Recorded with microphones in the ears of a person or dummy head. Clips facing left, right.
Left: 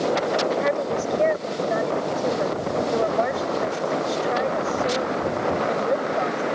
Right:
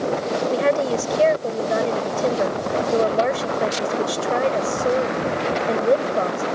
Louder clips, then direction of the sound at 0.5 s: Right 3 dB; 40° right (ahead or behind).